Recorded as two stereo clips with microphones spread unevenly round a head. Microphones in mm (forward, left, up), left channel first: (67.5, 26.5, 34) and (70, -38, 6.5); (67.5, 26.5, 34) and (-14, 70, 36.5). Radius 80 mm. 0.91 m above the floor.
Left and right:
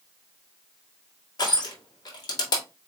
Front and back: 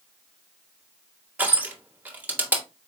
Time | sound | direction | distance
1.4 | crushing | 80° left | 1.7 m